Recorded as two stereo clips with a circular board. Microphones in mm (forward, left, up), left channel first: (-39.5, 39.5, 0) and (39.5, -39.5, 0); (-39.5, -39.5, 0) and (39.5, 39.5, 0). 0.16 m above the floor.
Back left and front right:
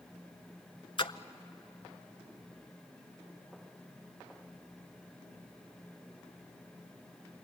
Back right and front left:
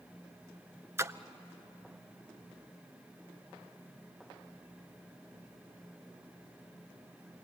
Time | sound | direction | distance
1.0 | a splash | 105° left | 0.6 m